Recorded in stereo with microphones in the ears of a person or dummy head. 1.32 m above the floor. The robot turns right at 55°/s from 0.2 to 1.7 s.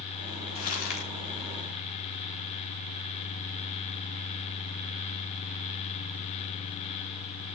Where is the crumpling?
50° left (ahead or behind), 6 m; by 1.1 s 75° left (ahead or behind), 6 m.